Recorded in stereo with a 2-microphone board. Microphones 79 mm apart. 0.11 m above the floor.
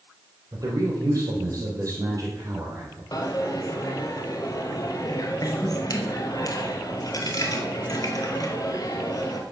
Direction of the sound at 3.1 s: 50° left (ahead or behind).